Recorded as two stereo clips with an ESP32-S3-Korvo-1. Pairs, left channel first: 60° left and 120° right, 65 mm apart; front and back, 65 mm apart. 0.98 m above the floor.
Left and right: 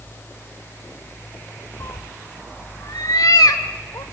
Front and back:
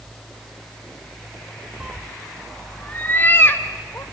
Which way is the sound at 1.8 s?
110° left.